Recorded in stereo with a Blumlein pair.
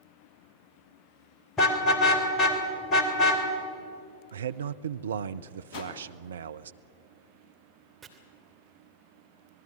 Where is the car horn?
20° left, 3 m.